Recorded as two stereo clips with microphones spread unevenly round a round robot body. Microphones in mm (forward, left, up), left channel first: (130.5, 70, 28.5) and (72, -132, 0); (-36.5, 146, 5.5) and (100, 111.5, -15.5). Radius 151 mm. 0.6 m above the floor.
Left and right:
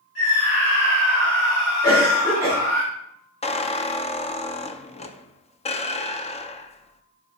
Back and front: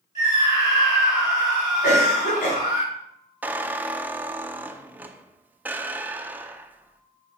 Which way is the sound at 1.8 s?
160° left.